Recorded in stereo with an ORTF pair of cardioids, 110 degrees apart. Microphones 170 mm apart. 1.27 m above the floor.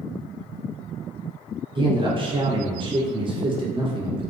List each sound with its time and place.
1.8 s a man speaking: 30° right, 1.0 m